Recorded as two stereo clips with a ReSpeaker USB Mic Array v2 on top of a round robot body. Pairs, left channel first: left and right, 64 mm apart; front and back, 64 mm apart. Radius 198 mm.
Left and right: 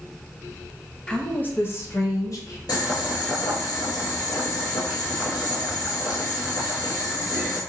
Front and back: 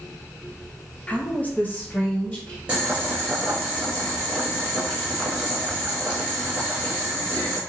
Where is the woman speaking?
30° left, 0.9 m; by 2.6 s 60° left, 1.7 m.